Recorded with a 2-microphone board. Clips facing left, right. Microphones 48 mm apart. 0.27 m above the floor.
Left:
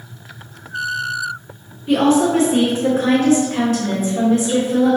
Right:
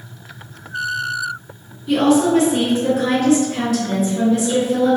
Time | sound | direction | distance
1.9 | a woman speaking | 35° left (ahead or behind) | 1.8 m